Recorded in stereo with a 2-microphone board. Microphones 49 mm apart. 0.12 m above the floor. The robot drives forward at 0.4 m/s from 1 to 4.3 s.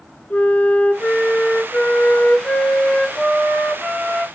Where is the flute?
35° left (ahead or behind), 0.7 m; by 4.2 s 15° left (ahead or behind), 1.5 m.